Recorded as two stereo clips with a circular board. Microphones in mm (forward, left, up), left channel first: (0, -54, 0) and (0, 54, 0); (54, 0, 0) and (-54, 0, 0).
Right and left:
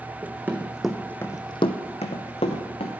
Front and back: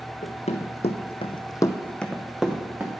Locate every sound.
0.2 s running footsteps: 20° left, 1.1 m; by 2.9 s 105° right, 1.4 m